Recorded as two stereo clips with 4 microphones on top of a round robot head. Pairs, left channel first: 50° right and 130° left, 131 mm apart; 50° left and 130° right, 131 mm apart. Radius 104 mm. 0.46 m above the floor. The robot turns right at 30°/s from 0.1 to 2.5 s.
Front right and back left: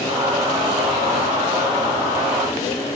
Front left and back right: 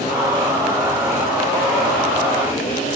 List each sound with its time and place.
Only background noise.